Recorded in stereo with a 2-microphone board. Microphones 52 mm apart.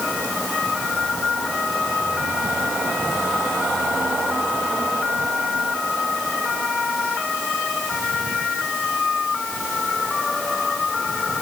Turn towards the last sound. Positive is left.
No sound to turn to.